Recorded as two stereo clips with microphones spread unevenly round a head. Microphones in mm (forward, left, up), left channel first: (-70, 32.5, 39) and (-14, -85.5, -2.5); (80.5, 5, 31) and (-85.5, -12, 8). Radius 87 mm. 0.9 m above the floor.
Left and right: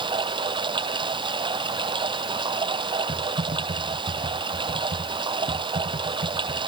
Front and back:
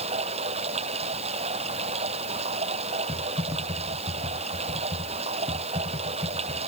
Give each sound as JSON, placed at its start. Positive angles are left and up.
{"t": 0.0, "sound": "running water", "azimuth_deg": -120}
{"t": 3.1, "sound": "typing on a keyboard", "azimuth_deg": -100}